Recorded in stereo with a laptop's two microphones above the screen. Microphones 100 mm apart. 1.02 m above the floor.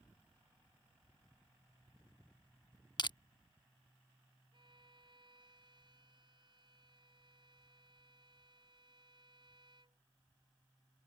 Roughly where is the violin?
Right.